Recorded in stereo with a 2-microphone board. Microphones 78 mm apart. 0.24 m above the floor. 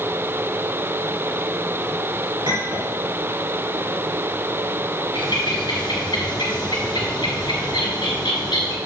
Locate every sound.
2.5 s a clink: 65° right (ahead or behind), 3 m
5.2 s a bird: 75° left (ahead or behind), 1.8 m